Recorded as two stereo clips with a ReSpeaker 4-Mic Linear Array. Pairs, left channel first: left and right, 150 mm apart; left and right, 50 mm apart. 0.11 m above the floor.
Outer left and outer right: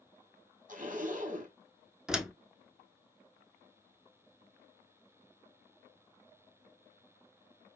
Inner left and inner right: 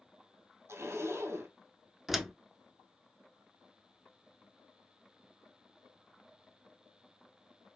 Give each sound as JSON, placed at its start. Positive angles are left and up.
{"t": 0.7, "sound": "a zipper", "side_deg": -65, "distance_m": 1.4}
{"t": 2.1, "sound": "a door slam", "side_deg": -5, "distance_m": 0.7}